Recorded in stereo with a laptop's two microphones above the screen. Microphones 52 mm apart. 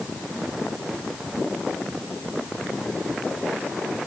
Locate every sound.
Only background noise.